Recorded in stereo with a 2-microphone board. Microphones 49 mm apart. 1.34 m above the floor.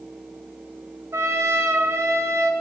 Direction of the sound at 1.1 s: 70° right (ahead or behind).